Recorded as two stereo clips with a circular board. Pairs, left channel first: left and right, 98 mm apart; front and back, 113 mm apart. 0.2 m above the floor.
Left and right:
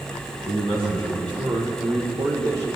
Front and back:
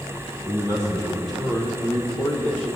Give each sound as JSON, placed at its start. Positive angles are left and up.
{"t": 0.5, "sound": "a man speaking", "azimuth_deg": -115, "distance_m": 5.5}